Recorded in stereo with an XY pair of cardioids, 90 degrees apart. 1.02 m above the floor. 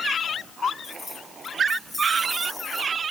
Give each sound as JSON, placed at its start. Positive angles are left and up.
{"t": 0.8, "sound": "keys jangling", "azimuth_deg": 10, "distance_m": 7.0}